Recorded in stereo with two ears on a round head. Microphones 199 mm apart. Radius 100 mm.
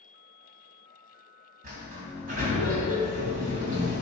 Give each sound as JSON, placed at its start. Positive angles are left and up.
{"t": 1.6, "sound": "a sliding door", "side_deg": -40, "distance_m": 3.0}